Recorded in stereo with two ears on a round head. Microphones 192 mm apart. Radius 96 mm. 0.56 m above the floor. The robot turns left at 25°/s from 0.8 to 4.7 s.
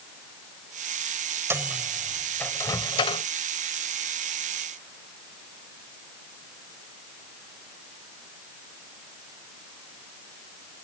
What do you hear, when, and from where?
1.5 s a microwave: 10° right (ahead or behind); by 3.2 s 30° left (ahead or behind)